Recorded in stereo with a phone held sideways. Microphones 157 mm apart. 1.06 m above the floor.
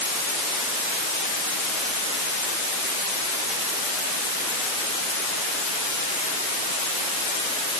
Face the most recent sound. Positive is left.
No sound to turn to.